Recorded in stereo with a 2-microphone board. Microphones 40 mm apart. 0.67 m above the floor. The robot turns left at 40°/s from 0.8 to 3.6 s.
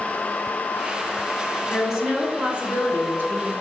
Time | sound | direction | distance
1.7 | a woman speaking | straight ahead | 3 m